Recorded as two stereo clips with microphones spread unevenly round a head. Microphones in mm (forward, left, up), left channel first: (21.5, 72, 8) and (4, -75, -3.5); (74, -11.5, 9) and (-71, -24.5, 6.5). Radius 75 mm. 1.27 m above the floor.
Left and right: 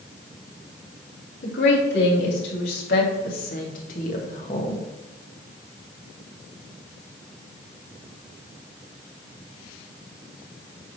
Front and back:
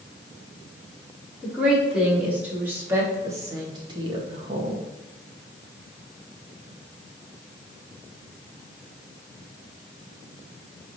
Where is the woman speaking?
100° left, 3.5 m; by 4.8 s 145° left, 1.5 m.